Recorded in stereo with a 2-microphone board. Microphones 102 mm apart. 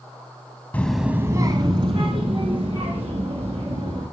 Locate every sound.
0.7 s a child speaking: 15° left (ahead or behind), 0.7 m; by 4.0 s 65° right (ahead or behind), 3.5 m